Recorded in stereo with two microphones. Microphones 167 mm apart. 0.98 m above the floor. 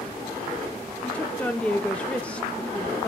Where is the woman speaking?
10° left (ahead or behind), 0.7 m.